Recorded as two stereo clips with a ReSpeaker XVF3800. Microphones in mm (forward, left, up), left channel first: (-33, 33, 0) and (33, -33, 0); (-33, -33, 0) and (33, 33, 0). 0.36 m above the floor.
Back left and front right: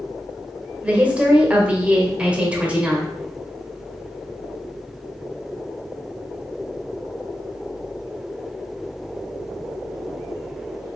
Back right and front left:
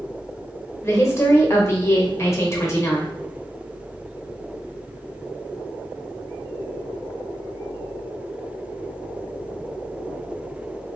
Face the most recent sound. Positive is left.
turn(degrees=-110)